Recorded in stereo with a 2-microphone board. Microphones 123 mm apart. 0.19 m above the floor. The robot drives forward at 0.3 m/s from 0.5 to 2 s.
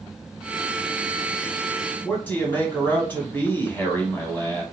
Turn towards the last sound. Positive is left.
turn(degrees=15)  # may be behind; listen again after turning